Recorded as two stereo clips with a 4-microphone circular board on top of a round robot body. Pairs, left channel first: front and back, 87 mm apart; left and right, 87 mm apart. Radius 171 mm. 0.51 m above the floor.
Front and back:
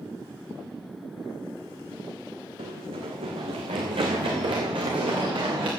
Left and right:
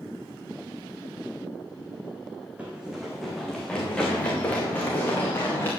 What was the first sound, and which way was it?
Running footsteps, 165° right.